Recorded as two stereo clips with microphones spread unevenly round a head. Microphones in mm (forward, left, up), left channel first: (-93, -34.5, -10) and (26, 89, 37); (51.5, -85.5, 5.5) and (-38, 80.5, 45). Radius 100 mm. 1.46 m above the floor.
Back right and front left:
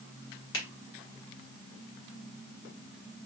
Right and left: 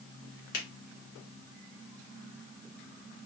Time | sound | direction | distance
0.5 | a finger snap | 110° right | 1.6 m